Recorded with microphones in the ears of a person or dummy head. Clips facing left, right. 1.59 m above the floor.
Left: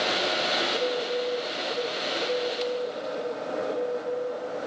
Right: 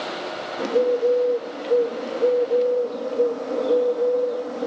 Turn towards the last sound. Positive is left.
turn(degrees=-75)  # may be behind; listen again after turning